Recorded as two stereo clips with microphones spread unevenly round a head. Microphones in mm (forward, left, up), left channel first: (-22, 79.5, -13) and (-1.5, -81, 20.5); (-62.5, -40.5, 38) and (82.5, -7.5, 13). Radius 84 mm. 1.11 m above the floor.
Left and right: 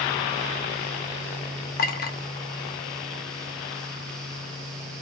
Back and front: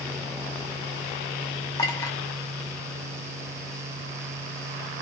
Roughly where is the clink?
Behind left.